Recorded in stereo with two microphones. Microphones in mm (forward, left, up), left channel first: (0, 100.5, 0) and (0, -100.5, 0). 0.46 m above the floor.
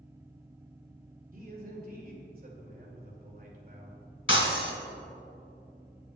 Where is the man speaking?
50° right (ahead or behind), 2 m.